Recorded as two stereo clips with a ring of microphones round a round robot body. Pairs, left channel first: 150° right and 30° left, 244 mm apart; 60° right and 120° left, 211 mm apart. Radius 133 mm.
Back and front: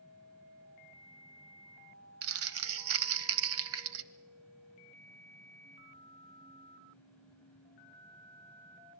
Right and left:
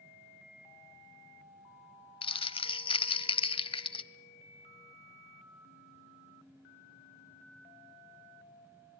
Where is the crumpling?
5° left, 1.0 m.